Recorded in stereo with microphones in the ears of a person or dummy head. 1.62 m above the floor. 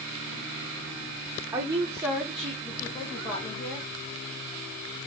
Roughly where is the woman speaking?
Right.